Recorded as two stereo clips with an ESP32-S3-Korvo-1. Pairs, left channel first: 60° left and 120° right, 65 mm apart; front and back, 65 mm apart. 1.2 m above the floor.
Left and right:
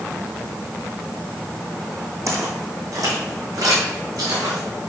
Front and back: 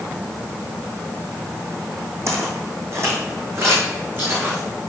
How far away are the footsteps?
About 2.5 m.